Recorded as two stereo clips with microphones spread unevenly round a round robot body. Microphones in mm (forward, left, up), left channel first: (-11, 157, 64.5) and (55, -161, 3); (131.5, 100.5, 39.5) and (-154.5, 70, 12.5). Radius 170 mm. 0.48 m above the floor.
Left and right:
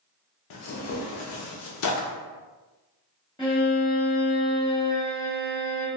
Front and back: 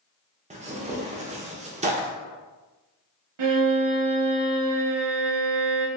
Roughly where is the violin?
Behind.